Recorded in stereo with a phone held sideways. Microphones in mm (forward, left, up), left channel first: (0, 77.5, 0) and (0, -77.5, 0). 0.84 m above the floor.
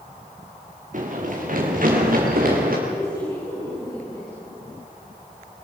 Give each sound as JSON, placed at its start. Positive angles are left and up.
{"t": 0.9, "sound": "running footsteps", "side_deg": -55, "distance_m": 5.5}
{"t": 2.9, "sound": "a woman speaking", "side_deg": 30, "distance_m": 9.5}